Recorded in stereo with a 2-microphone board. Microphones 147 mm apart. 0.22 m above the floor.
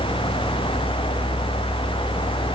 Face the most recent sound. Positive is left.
No sound to turn to.